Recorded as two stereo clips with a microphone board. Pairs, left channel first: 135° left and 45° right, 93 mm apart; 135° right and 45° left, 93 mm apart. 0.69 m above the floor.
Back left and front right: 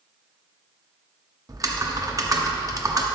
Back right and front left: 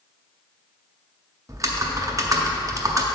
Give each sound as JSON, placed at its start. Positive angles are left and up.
{"t": 1.5, "sound": "typing on a keyboard", "azimuth_deg": -5, "distance_m": 0.7}